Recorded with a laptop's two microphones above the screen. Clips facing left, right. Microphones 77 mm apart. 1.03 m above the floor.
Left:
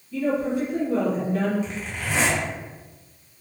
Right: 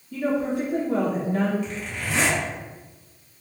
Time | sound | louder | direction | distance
0.1 | a woman speaking | left 1 dB | 50° right (ahead or behind) | 0.6 m
1.6 | a zipper | even | 25° left (ahead or behind) | 1.1 m